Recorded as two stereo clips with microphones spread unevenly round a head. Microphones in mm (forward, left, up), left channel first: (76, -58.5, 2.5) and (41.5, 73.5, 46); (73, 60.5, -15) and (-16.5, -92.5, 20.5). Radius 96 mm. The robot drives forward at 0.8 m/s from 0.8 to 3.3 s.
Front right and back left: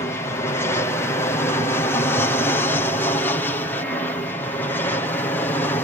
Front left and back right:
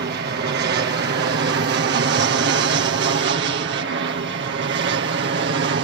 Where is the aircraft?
120° right; by 5.8 s 130° right.